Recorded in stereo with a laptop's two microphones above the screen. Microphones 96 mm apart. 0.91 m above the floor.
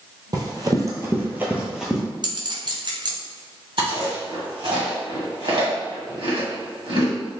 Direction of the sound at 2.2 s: 45° right (ahead or behind).